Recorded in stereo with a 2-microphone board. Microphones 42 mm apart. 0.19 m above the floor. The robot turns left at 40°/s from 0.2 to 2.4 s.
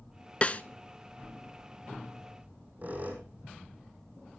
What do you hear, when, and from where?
0.4 s a snare drum: 30° left (ahead or behind), 0.5 m; by 0.6 s 35° left (ahead or behind), 0.5 m
2.4 s a squeak: 40° right (ahead or behind), 2.5 m